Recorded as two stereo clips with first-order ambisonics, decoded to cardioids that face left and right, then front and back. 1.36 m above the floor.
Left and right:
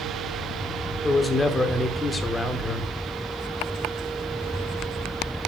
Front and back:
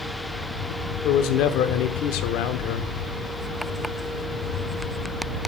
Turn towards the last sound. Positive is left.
turn(degrees=15)